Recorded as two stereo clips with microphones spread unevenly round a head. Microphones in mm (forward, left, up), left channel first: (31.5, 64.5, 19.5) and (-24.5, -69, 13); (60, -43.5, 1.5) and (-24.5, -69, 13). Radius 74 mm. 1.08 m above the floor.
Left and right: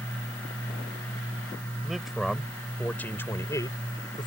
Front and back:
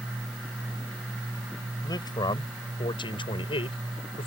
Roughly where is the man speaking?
Ahead right.